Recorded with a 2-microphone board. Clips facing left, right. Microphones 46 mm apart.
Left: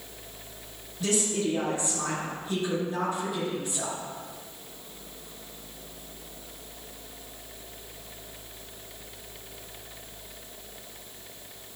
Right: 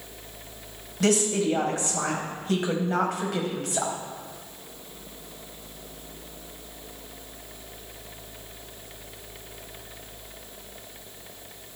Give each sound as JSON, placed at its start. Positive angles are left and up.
{"t": 1.0, "sound": "a woman speaking", "side_deg": -80, "distance_m": 4.5}